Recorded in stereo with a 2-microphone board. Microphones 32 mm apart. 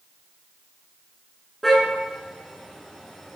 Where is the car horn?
5° left (ahead or behind), 7.5 m.